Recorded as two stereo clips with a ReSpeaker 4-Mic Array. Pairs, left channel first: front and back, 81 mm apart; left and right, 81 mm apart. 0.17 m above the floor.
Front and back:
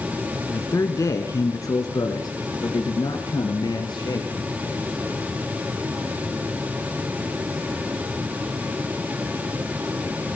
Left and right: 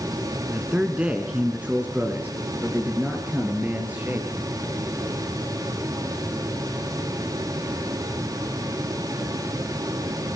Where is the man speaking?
20° right, 2 m; by 4.3 s 25° right, 4 m.